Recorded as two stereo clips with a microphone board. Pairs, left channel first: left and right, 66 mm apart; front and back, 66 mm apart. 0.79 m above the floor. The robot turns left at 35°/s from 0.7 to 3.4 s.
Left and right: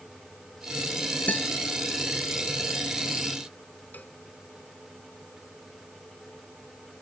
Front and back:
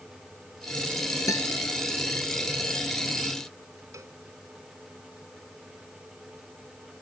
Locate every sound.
1.3 s a guitar: 25° left; by 1.5 s 20° left
3.9 s a cowbell: 150° left